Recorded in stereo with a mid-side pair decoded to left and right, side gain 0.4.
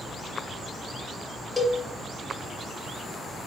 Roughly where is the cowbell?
Ahead left.